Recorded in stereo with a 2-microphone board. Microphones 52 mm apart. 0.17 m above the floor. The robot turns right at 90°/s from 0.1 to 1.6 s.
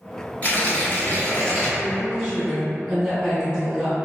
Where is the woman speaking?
10° right (ahead or behind), 1.5 m.